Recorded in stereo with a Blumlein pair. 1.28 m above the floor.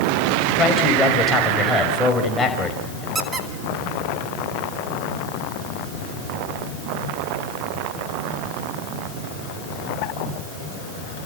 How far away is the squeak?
About 2 m.